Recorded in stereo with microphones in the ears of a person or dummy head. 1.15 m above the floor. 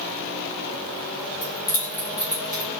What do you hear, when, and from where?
1.4 s keys jangling: 25° left (ahead or behind), 1.3 m; by 2.7 s 25° right (ahead or behind), 1.3 m